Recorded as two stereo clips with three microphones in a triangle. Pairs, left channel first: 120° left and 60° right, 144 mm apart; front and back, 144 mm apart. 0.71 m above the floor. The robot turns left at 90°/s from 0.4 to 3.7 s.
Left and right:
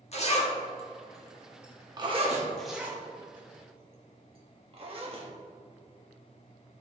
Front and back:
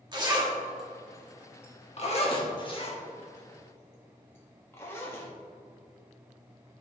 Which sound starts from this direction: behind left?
A zipper, at 0.1 s.